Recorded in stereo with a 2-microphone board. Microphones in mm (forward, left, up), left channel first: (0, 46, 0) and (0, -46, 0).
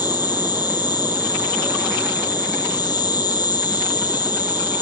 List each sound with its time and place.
0.0 s an insect: 50° left (ahead or behind), 1.6 m